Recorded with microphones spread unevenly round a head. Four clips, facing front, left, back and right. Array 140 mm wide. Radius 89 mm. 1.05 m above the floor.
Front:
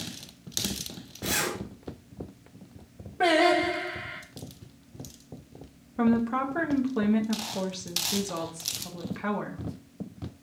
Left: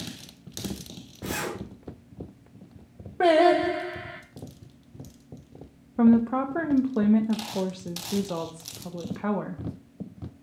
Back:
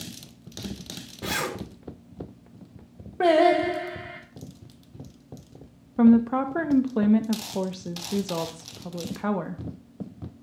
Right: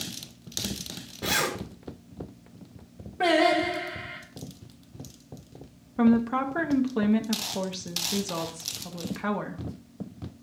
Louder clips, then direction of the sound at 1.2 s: Right 3 dB, back 1 dB; 115° right.